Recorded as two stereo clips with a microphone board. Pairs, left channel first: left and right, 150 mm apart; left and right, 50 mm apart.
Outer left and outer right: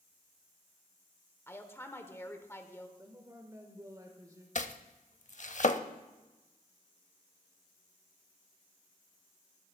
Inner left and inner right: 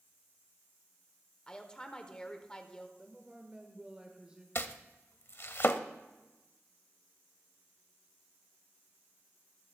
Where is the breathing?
No breathing in this recording.